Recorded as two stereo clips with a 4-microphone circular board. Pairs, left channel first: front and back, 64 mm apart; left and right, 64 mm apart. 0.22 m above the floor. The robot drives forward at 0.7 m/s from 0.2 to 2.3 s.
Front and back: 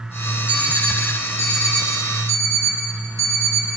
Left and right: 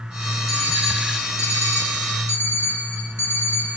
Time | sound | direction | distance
0.5 | an alarm clock | 115° left | 1.8 m